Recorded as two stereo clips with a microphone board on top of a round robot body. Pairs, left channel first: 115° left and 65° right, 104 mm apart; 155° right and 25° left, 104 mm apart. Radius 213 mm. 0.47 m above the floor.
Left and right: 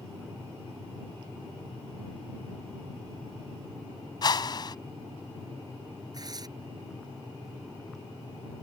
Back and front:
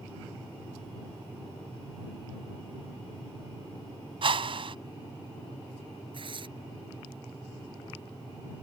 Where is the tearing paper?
15° right.